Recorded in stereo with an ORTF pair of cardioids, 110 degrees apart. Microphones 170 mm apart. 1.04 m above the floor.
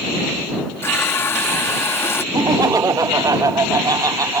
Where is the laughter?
20° right.